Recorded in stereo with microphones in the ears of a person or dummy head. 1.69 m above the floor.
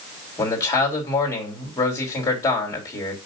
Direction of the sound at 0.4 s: 20° left (ahead or behind).